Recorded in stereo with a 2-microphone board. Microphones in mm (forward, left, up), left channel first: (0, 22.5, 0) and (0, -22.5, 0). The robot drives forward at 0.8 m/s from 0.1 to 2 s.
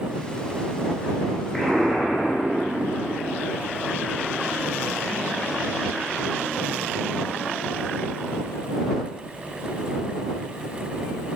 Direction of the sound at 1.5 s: 15° left (ahead or behind).